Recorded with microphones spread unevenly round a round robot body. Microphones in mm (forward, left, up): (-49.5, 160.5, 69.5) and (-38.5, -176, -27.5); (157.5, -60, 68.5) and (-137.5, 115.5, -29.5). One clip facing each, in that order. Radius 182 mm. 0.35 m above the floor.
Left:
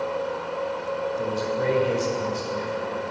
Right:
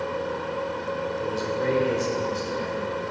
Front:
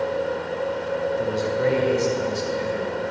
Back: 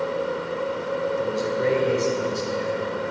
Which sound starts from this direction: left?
A man speaking, at 1.2 s.